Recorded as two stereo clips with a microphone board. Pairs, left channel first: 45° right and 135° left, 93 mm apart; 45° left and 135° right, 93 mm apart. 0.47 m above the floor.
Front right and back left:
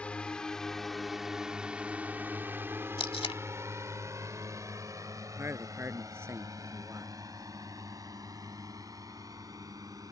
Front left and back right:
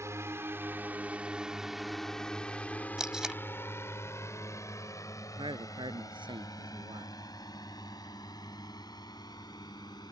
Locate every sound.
0.0 s a drone: 110° right; by 10.1 s 85° left
3.0 s tape being pulled: 50° right
5.4 s a man speaking: 160° right